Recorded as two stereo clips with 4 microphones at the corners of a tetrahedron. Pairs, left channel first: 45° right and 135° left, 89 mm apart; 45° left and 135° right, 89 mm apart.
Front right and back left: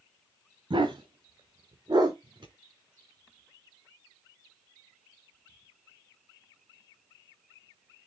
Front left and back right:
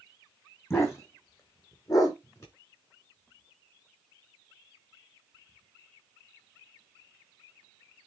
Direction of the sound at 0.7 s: 105° left.